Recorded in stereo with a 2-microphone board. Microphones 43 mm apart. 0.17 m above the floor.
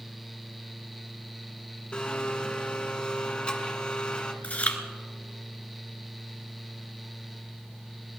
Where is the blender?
20° left (ahead or behind), 1.4 m.